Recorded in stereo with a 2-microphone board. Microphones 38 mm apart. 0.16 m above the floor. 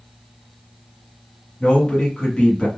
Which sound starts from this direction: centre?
A man speaking, at 1.6 s.